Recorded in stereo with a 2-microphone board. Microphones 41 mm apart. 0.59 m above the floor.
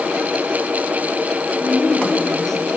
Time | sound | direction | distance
1.6 | a woman speaking | 10° left (ahead or behind) | 1.7 m